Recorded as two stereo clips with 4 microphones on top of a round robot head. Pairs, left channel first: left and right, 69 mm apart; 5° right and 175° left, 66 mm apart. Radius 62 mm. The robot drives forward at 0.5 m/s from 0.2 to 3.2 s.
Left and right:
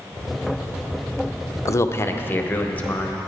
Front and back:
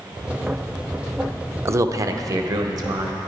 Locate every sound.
1.6 s a man speaking: 130° left, 0.5 m; by 3.2 s 160° left, 1.2 m